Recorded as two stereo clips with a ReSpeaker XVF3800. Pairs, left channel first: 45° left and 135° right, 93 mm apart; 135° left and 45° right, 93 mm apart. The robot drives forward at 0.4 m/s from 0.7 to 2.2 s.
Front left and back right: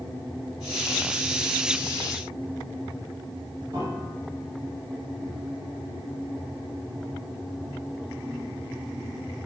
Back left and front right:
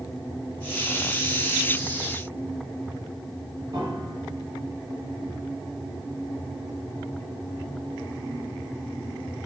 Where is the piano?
90° right, 6 m.